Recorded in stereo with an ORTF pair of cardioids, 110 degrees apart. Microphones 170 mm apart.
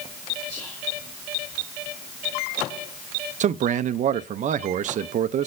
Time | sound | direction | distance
0.5 | whispering | 25° left | 3.5 m
3.4 | a man speaking | 45° right | 0.6 m